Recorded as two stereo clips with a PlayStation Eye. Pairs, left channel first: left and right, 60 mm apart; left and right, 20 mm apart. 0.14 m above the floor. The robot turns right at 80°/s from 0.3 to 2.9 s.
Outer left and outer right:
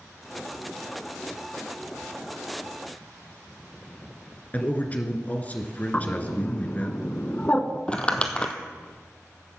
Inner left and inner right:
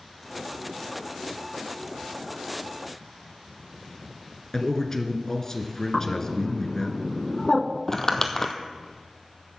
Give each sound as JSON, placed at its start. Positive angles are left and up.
{"t": 4.5, "sound": "a man speaking", "side_deg": 25, "distance_m": 1.7}
{"t": 5.9, "sound": "a bird", "side_deg": 25, "distance_m": 0.8}
{"t": 7.9, "sound": "crumpling", "side_deg": 20, "distance_m": 1.2}